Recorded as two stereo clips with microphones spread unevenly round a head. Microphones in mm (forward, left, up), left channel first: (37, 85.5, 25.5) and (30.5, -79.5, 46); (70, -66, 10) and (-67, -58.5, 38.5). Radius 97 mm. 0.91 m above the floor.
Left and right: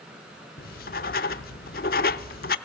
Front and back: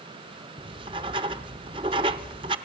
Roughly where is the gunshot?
I don't hear a gunshot.